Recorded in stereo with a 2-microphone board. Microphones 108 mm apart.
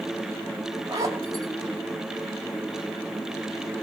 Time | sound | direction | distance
0.9 | a zipper | 35° right (ahead or behind) | 5.5 m